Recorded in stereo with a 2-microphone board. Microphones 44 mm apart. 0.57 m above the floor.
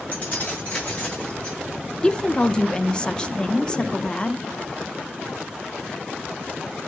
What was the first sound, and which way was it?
Keys jangling, 35° left (ahead or behind).